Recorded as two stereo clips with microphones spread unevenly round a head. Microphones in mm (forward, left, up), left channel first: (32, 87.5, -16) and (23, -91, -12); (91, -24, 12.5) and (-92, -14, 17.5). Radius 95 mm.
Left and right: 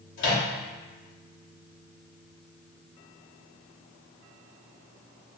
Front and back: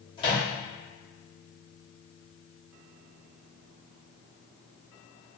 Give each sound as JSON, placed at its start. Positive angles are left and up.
{"t": 0.2, "sound": "a microwave", "azimuth_deg": 65, "distance_m": 0.8}